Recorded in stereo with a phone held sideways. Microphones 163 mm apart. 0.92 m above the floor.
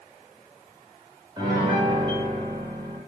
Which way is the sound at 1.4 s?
30° right (ahead or behind).